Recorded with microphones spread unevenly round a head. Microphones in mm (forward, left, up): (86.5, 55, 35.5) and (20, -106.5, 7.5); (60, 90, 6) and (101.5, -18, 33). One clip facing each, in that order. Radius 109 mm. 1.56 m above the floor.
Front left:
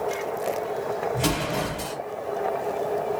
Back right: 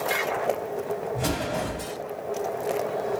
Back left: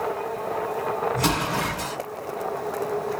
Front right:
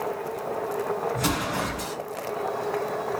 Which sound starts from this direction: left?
An explosion, at 1.1 s.